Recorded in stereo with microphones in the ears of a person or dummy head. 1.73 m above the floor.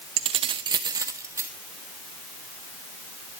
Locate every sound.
0.2 s keys jangling: 30° right (ahead or behind), 0.7 m; by 1.5 s 15° right (ahead or behind), 1.1 m